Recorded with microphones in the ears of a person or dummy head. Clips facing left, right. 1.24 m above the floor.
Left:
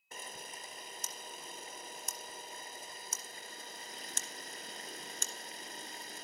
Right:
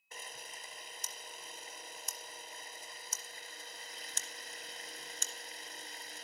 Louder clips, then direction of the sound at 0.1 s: Left 3 dB; 40° left (ahead or behind).